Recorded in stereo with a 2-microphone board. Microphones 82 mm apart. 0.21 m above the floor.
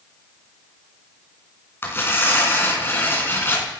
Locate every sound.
1.8 s tearing paper: 25° left (ahead or behind), 2.5 m